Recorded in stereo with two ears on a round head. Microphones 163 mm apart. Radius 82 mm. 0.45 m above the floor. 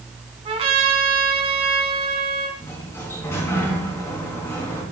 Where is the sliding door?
15° left (ahead or behind), 4 m.